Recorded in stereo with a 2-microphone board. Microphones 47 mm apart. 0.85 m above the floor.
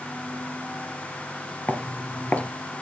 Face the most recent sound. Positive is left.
turn(degrees=35)  # may be behind; listen again after turning